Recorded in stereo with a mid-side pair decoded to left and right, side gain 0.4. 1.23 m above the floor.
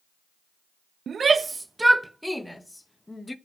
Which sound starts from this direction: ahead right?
A shout, at 1.1 s.